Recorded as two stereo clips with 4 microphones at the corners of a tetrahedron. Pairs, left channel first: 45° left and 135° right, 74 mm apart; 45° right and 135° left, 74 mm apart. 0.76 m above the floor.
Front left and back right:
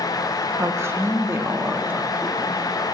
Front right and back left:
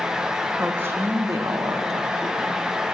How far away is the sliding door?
I don't hear a sliding door.